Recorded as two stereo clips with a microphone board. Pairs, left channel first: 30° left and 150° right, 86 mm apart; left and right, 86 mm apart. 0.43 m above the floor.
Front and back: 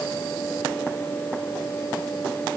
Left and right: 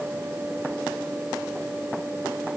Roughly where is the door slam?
I don't hear a door slam.